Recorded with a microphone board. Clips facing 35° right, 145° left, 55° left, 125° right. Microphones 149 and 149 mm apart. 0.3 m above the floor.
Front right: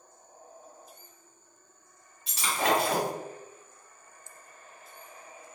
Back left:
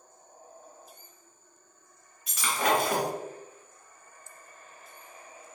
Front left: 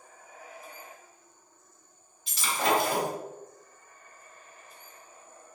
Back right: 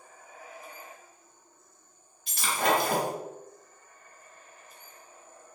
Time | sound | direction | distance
2.3 | breaking glass | 90° right | 1.5 m